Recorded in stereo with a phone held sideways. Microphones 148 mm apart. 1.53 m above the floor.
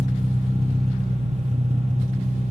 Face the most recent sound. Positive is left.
turn(degrees=-45)  # may be behind; listen again after turning